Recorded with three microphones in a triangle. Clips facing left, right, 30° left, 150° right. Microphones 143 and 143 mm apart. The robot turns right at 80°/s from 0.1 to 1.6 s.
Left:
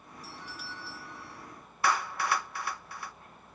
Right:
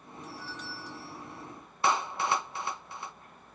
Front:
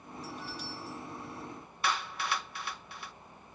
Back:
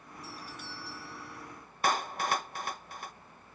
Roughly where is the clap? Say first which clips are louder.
Right 1 dB, back 4 dB; behind right.